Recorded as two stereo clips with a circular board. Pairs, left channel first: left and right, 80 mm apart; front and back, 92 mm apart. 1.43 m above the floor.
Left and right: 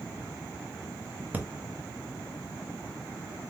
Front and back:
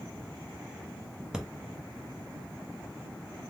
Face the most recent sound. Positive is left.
turn(degrees=-110)